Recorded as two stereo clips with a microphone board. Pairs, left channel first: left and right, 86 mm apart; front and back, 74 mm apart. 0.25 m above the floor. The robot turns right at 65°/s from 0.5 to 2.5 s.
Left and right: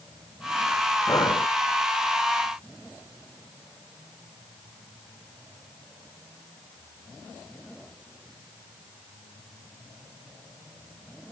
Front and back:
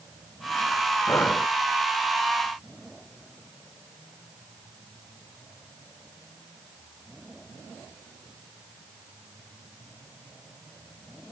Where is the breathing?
45° left; by 1.5 s 70° left.